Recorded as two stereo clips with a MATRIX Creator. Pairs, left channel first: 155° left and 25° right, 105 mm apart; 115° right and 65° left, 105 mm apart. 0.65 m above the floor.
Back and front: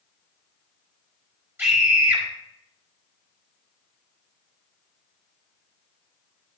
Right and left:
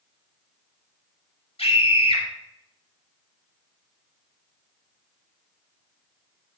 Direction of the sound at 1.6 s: 95° right.